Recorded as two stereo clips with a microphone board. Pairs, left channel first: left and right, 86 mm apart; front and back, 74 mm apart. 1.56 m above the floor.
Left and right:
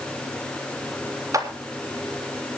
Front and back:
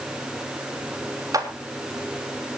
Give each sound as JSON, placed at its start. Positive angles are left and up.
{"t": 1.3, "sound": "a clap", "azimuth_deg": -140, "distance_m": 3.0}